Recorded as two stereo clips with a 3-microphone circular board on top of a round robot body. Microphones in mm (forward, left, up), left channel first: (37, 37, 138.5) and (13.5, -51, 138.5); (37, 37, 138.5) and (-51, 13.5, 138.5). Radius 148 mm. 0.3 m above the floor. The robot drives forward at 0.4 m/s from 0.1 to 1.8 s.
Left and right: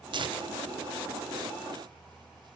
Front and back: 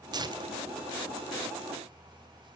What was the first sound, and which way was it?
Tearing paper, 130° right.